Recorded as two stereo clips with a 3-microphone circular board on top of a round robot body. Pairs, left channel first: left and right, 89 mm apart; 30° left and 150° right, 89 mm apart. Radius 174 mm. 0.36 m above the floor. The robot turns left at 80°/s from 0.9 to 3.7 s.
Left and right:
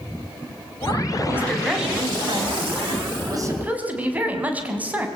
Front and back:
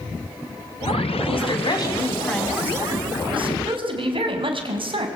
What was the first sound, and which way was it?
A woman speaking, 30° left.